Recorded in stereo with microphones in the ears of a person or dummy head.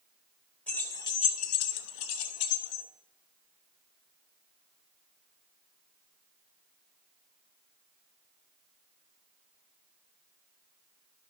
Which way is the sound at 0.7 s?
5° left (ahead or behind).